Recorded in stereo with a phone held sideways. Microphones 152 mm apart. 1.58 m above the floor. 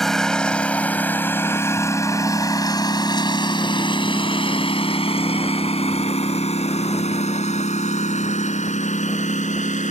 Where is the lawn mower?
Centre (ahead or behind); by 9.9 s 55° left (ahead or behind).